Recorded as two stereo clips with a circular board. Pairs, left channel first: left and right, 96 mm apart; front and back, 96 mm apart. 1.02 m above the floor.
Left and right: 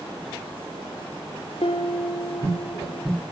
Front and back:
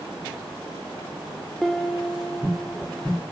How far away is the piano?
About 3 m.